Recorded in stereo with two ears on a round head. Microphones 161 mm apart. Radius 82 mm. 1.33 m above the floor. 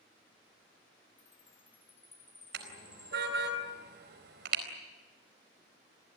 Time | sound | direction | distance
1.2 | a chime | 10° left (ahead or behind) | 2.5 m
2.5 | a car horn | 65° right (ahead or behind) | 4.5 m